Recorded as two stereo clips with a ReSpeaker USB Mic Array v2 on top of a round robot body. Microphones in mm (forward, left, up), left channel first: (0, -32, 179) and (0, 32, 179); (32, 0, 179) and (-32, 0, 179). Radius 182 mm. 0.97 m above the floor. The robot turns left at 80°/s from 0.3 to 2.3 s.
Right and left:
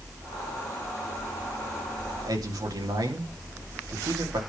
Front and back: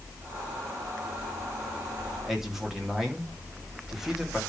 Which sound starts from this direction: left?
A man speaking, at 2.2 s.